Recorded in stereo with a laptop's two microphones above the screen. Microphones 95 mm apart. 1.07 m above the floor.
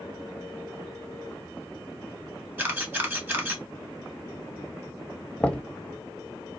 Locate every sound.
2.6 s a camera shutter: 25° right (ahead or behind), 1.4 m
5.4 s knocking: 10° left (ahead or behind), 0.9 m